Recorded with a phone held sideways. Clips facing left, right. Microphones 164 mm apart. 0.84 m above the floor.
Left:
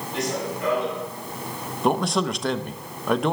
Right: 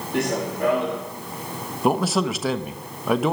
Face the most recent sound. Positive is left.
turn(degrees=-5)  # may be behind; listen again after turning